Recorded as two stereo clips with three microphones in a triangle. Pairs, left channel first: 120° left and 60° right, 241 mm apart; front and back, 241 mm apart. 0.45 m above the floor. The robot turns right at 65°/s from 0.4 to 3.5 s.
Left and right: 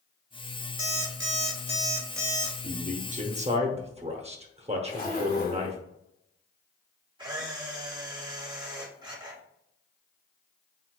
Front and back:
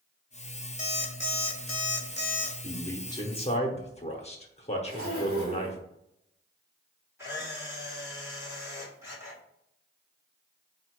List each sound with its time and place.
0.8 s an alarm clock: 55° right, 1.0 m; by 2.5 s 55° left, 1.0 m
2.6 s a man speaking: 85° right, 0.8 m; by 5.8 s 30° right, 0.8 m
4.8 s a zipper: 145° left, 1.5 m
7.2 s a camera shutter: 110° right, 1.6 m